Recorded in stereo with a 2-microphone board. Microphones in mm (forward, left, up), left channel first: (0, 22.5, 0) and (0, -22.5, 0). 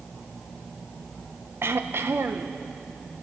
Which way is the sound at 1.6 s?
60° right (ahead or behind).